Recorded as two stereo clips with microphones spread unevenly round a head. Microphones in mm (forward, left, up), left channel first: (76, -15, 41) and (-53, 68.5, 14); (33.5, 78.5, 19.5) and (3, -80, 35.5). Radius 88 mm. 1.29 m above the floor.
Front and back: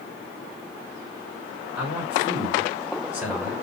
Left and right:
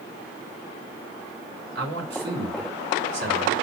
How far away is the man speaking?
About 5.5 m.